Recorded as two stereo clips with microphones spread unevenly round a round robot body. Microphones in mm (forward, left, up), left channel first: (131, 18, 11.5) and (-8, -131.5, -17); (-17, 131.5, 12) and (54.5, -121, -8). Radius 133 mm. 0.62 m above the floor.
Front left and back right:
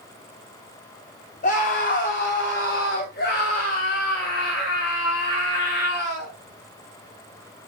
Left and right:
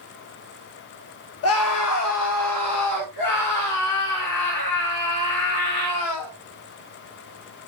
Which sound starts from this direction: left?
A scream, at 1.4 s.